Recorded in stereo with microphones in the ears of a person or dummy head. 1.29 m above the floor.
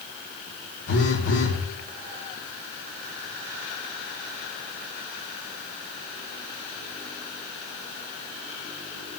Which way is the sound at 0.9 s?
70° left (ahead or behind).